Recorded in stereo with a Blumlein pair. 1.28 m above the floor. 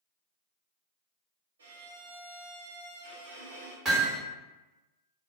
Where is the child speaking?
No child speaking in this recording.